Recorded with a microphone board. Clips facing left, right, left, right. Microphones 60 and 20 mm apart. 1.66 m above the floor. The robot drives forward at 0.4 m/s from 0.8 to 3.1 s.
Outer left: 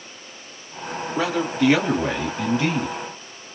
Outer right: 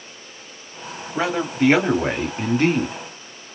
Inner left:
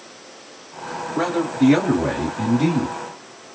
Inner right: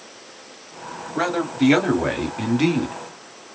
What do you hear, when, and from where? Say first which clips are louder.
1.1 s a man speaking: outer right 1 dB, inner left 1 dB; 30° right (ahead or behind), 1.4 m; by 3.0 s 50° right (ahead or behind), 0.9 m